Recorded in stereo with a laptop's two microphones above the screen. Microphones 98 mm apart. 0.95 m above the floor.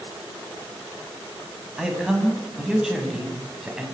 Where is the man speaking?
5° right (ahead or behind), 8 m.